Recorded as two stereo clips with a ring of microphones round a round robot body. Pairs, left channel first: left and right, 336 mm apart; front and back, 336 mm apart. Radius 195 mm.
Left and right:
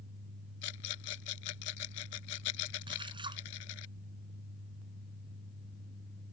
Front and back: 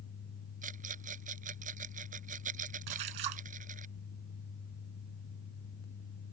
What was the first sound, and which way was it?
A rattle, 110° left.